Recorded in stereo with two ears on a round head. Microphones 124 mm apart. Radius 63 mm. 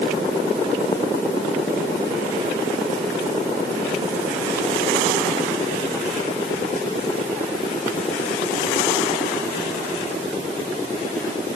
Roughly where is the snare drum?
I don't hear a snare drum.